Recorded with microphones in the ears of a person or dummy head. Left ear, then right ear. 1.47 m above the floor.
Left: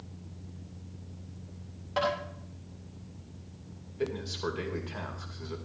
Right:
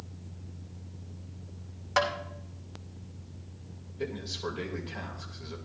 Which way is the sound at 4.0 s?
30° left (ahead or behind).